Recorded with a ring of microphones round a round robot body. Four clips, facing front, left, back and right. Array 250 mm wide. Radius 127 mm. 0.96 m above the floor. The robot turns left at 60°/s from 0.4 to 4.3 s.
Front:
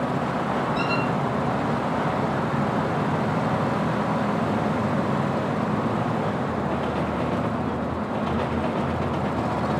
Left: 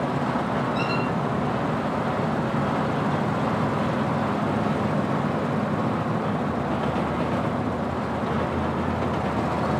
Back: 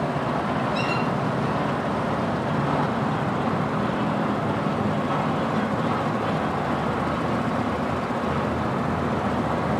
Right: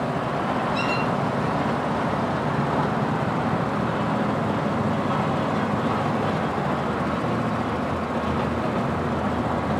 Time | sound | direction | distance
0.8 | a squeak | 130° right | 1.3 m